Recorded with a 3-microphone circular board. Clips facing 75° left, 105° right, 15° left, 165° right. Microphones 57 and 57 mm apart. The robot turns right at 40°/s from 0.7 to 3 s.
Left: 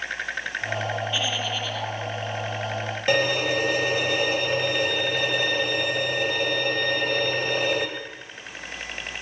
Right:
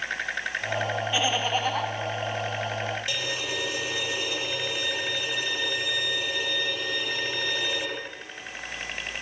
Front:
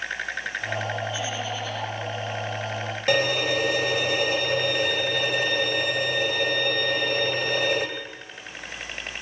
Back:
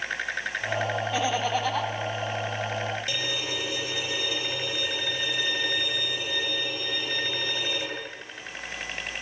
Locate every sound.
1.1 s laughter: straight behind, 4 m; by 1.9 s 145° right, 4 m
3.1 s a violin: 45° left, 3.5 m